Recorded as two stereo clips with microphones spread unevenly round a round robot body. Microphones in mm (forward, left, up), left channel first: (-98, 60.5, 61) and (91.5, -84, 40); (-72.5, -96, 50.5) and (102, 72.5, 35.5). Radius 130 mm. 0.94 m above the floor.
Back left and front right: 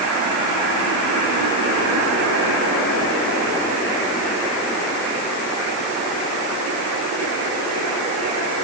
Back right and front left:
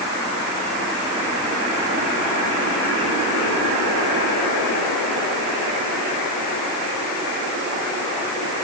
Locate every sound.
Only background noise.